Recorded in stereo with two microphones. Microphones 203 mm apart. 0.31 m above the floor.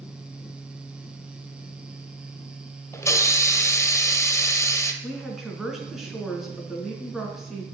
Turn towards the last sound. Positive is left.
turn(degrees=0)  # may be behind; listen again after turning